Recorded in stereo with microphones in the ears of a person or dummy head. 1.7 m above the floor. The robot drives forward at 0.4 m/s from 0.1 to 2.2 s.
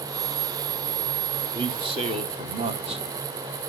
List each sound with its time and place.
1.5 s a man speaking: 25° right (ahead or behind), 0.8 m; by 3.0 s 35° right (ahead or behind), 0.6 m